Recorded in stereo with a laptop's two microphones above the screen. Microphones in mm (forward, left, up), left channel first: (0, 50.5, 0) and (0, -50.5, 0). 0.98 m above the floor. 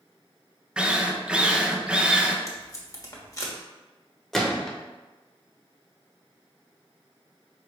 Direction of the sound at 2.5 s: 35° left (ahead or behind).